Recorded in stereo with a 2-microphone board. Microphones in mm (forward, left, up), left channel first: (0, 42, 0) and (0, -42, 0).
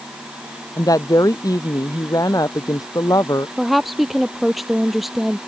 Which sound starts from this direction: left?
A woman speaking, at 0.8 s.